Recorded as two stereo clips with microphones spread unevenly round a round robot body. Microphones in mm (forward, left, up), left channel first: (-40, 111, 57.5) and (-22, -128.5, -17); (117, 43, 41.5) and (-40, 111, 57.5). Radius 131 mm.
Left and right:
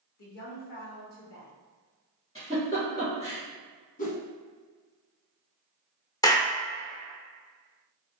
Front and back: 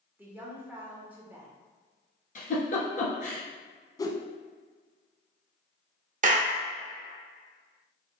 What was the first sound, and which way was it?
A woman speaking, 75° left.